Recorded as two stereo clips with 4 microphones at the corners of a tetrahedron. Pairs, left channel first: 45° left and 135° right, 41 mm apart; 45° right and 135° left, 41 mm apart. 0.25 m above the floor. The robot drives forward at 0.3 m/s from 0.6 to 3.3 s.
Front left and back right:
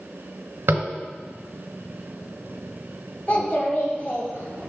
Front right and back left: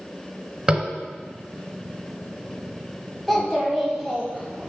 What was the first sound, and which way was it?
Tapping, 155° right.